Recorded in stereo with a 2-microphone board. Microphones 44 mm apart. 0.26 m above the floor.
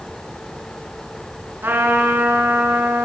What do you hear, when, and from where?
1.6 s a trumpet: 50° right (ahead or behind), 2 m